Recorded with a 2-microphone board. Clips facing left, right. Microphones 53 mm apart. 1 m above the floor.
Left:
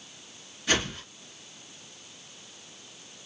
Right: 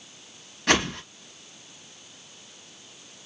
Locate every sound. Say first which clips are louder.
0.7 s a whoosh: right 5 dB; 65° right (ahead or behind), 0.9 m